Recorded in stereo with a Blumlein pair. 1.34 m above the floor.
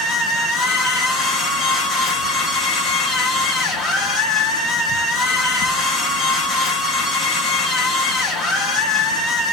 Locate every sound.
0.0 s a machine running: 20° left, 1.0 m